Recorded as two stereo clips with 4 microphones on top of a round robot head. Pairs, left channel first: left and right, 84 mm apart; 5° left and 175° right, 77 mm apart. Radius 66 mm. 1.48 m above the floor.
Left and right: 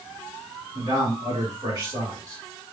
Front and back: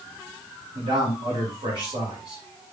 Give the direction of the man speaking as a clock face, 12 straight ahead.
5 o'clock.